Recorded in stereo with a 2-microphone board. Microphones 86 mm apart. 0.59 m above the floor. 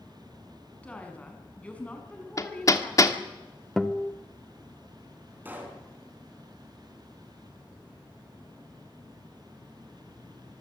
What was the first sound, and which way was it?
A woman speaking, 15° left (ahead or behind).